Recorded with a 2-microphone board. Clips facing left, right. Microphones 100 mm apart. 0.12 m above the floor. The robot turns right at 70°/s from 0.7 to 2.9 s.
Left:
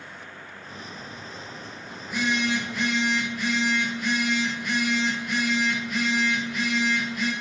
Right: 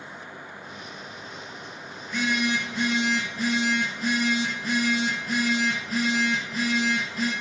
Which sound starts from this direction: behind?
A phone buzzing, at 2.0 s.